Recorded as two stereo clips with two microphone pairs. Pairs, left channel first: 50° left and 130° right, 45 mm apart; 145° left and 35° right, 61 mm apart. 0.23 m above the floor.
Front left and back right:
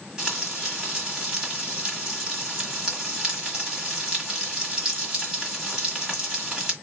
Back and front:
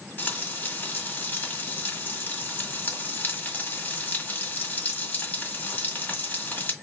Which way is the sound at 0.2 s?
165° left.